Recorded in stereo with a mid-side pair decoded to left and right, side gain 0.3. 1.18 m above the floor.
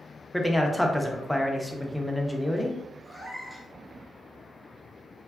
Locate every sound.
0.3 s a man speaking: straight ahead, 0.6 m
3.0 s a cat meowing: 10° right, 1.3 m